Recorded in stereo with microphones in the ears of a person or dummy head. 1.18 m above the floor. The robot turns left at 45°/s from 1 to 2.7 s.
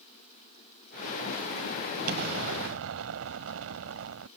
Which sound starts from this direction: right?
An explosion, at 2.1 s.